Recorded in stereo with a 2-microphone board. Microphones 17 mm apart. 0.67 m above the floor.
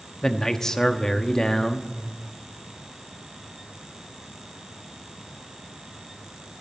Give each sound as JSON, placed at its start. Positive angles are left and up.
{"t": 0.2, "sound": "a man speaking", "side_deg": 35, "distance_m": 1.0}